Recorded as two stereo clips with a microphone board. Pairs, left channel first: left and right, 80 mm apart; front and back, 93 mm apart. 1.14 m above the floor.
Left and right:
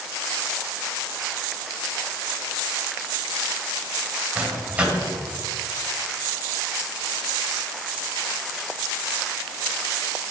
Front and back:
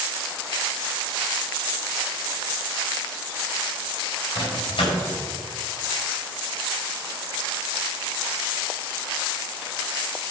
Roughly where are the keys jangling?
No keys jangling in this recording.